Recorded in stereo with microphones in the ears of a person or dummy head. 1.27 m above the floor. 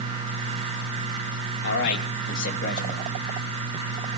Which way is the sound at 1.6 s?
70° left (ahead or behind).